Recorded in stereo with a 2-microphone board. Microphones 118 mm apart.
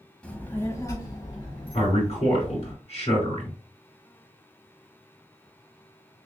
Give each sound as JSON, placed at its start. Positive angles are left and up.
{"t": 0.2, "sound": "a child speaking", "side_deg": 10, "distance_m": 1.0}
{"t": 1.7, "sound": "a man speaking", "side_deg": 65, "distance_m": 3.0}